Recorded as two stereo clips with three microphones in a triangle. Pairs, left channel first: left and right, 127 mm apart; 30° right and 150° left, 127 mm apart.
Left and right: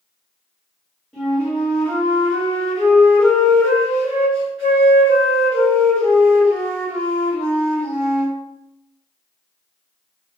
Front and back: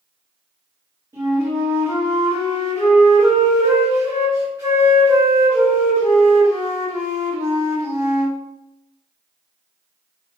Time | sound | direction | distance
1.1 | a flute | 165° left | 1.4 m